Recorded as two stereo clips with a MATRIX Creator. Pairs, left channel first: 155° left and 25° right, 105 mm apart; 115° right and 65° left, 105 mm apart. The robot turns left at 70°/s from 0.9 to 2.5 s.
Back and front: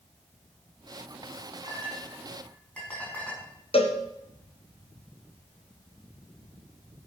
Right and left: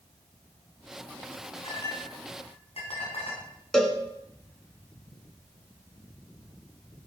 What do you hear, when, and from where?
1.6 s a clink: 65° right, 6 m; by 3.4 s 125° right, 6 m
3.7 s a cowbell: 165° left, 2.5 m